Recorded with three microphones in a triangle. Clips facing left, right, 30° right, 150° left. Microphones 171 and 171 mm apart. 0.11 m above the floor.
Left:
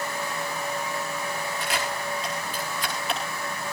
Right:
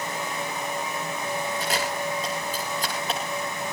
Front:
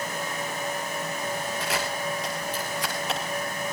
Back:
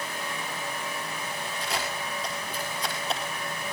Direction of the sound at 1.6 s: 40° right.